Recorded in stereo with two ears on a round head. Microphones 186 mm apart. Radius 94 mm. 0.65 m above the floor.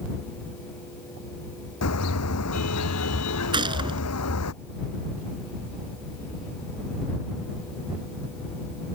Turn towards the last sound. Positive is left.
turn(degrees=-25)  # may be behind; listen again after turning